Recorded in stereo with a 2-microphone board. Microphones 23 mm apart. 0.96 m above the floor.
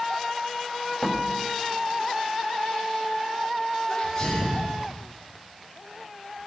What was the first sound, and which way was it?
A door slam, 20° left (ahead or behind).